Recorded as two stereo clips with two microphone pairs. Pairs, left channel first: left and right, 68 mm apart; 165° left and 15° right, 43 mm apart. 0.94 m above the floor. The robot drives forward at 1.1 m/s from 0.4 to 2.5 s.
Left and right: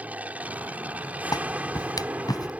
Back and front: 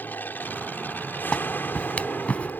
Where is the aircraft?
155° right; by 2.6 s 160° right.